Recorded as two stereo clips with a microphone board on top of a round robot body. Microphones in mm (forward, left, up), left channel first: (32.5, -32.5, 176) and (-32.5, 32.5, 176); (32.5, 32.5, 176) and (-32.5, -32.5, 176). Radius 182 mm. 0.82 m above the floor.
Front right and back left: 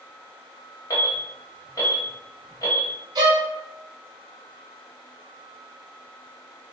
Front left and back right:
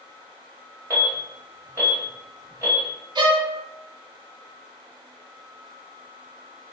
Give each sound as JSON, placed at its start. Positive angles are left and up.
{"t": 0.9, "sound": "an alarm", "azimuth_deg": -85, "distance_m": 1.5}
{"t": 3.1, "sound": "a violin", "azimuth_deg": 180, "distance_m": 0.7}